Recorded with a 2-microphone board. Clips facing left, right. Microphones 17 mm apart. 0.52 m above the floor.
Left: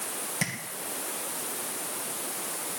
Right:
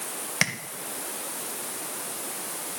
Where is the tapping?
50° right (ahead or behind), 2 m.